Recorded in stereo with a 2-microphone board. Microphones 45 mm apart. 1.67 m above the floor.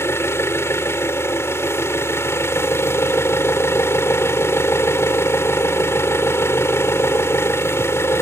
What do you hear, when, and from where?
0.0 s an engine running: 80° left